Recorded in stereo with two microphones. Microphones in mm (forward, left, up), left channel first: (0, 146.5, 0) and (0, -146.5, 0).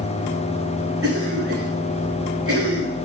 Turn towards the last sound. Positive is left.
turn(degrees=-50)  # may be behind; listen again after turning